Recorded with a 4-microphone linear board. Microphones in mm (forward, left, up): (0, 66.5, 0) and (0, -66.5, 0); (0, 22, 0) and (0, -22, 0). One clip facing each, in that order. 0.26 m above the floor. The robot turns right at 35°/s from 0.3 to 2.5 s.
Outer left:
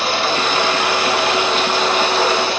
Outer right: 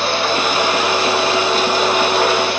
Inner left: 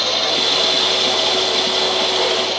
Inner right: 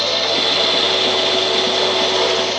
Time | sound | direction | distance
0.0 | running water | straight behind | 1.9 m